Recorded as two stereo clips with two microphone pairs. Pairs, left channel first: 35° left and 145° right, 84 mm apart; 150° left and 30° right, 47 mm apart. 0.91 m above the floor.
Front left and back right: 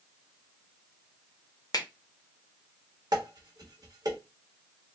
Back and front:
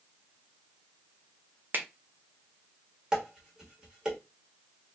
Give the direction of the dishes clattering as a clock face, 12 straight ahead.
4 o'clock.